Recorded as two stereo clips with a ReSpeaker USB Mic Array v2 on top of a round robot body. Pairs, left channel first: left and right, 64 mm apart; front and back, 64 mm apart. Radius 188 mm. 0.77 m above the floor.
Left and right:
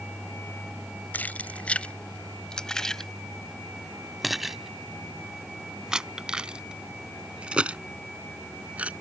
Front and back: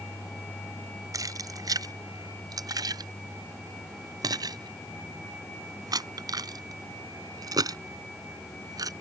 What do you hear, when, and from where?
1.1 s keys jangling: 155° left; by 8.9 s 160° right